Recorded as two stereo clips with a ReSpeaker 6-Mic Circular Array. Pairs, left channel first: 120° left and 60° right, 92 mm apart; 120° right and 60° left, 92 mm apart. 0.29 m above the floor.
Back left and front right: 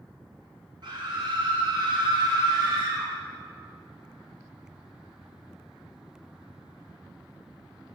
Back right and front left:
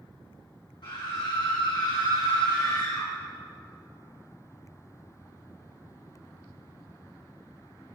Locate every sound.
0.8 s a scream: 90° right, 4 m; by 3.1 s 80° right, 2.5 m